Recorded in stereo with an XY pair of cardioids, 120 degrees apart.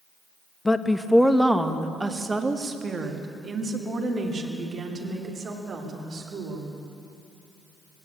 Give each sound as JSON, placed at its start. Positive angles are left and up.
{"t": 0.7, "sound": "a woman speaking", "azimuth_deg": 15, "distance_m": 1.0}